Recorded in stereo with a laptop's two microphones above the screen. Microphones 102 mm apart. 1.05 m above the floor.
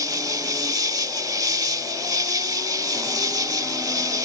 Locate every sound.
0.0 s an insect: 40° right (ahead or behind)